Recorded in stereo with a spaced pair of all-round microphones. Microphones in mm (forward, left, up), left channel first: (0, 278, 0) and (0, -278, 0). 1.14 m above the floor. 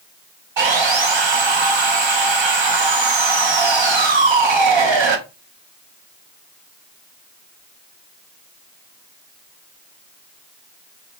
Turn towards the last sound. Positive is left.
turn(degrees=-55)  # may be behind; listen again after turning